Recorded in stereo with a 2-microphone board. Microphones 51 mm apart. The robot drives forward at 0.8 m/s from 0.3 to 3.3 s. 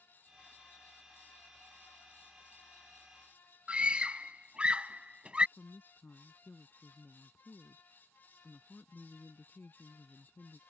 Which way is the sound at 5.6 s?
45° left (ahead or behind).